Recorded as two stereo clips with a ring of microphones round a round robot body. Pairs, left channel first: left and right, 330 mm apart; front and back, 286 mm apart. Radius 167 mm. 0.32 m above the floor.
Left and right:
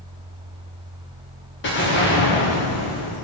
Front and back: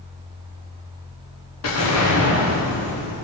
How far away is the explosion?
About 8.5 m.